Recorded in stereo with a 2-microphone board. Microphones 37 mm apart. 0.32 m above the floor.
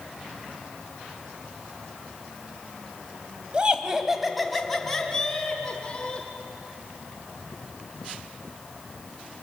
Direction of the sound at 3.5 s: 30° right (ahead or behind).